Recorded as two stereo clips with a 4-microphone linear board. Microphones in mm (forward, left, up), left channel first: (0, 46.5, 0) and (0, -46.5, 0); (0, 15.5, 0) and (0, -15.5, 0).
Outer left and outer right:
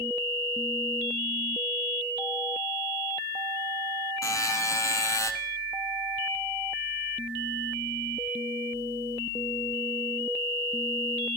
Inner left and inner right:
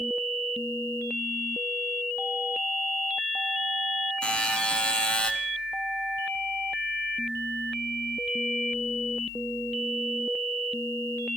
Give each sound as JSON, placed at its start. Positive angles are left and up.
{"t": 4.2, "sound": "a buzzer", "side_deg": 40, "distance_m": 1.1}